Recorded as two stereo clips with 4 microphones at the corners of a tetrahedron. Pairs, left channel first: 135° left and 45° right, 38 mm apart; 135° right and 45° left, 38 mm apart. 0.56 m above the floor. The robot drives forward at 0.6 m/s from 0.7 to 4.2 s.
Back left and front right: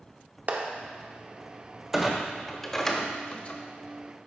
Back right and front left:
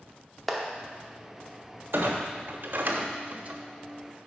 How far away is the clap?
About 0.8 m.